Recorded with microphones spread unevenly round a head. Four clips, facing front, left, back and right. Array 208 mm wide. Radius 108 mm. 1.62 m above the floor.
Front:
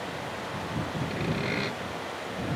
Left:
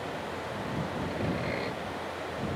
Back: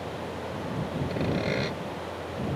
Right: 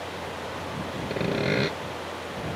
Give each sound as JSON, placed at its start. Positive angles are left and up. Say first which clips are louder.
{"t": 1.1, "sound": "sawing", "louder": "right 10 dB, back 4 dB", "azimuth_deg": -100}